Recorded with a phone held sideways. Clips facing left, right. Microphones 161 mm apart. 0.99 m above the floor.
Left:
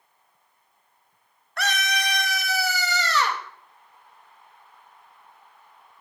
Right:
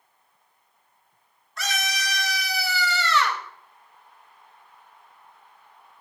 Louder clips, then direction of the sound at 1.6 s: Left 4 dB; 65° left (ahead or behind).